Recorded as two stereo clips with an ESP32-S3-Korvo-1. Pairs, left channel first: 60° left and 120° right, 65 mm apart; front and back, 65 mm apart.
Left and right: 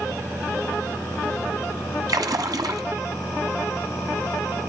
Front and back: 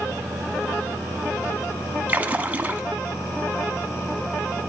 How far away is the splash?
About 1.0 m.